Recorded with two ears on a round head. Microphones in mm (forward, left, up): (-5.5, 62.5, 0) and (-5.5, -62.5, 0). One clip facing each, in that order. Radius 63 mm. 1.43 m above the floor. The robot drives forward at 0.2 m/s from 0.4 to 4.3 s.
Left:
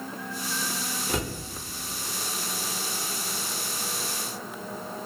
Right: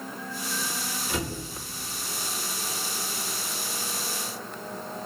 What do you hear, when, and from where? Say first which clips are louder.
1.1 s a cupboard door: left 1 dB; 35° left (ahead or behind), 1.0 m; by 1.4 s 40° left (ahead or behind), 1.0 m